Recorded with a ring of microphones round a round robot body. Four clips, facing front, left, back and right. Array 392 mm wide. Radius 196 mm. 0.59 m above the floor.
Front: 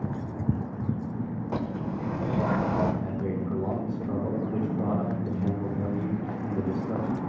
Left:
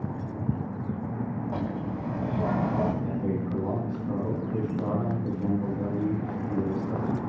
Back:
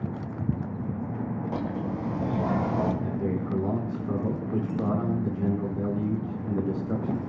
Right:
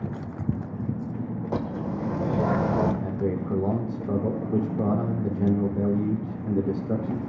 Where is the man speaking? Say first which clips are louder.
Right 2 dB, back 1 dB; 105° right, 4 m.